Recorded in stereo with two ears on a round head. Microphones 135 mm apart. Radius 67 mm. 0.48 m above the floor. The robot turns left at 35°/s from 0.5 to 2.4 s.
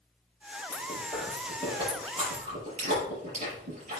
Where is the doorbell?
No doorbell in this recording.